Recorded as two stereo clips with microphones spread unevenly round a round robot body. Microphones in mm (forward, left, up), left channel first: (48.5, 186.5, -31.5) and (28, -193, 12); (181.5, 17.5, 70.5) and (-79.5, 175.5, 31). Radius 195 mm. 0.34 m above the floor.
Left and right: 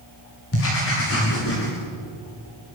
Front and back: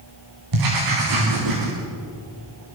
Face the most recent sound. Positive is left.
turn(degrees=145)